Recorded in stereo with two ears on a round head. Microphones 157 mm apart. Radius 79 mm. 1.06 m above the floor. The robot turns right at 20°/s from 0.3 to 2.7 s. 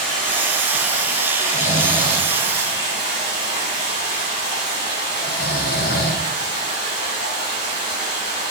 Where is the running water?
70° left, 4.5 m; by 8.5 s 115° left, 4.5 m.